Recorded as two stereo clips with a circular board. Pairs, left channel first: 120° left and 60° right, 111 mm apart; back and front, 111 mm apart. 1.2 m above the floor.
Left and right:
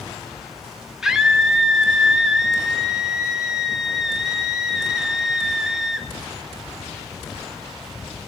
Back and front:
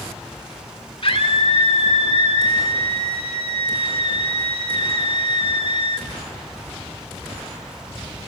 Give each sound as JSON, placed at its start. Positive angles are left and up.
{"t": 1.0, "sound": "a scream", "azimuth_deg": -145, "distance_m": 1.8}